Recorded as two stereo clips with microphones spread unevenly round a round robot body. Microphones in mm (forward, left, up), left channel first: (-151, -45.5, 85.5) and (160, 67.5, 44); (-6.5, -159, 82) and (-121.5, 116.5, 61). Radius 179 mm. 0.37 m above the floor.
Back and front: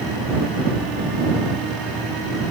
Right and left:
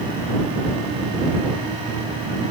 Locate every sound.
Only background noise.